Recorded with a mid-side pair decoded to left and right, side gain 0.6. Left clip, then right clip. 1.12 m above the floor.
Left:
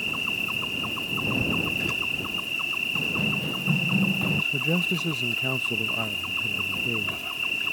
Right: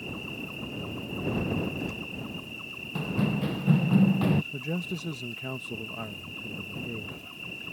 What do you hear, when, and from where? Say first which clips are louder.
0.0 s an insect: left 11 dB; 55° left
3.0 s running footsteps: left 6 dB; 20° right
4.5 s a man speaking: left 10 dB; 30° left